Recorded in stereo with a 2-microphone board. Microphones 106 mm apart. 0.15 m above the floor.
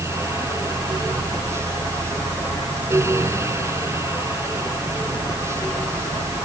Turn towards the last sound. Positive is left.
No sound to turn to.